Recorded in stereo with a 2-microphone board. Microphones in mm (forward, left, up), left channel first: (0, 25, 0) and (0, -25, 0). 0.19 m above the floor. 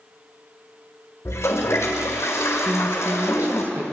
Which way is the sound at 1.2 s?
70° left (ahead or behind).